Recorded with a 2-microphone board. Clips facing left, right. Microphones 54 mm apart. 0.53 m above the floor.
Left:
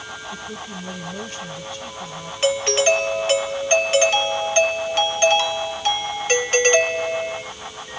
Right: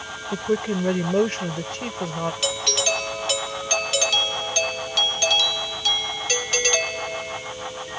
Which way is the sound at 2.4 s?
35° left (ahead or behind).